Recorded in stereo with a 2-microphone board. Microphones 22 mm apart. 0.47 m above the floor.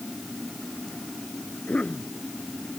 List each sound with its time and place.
1.7 s a cough: 80° left